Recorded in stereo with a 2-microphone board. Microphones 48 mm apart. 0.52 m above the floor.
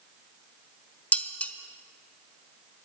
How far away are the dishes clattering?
About 0.8 m.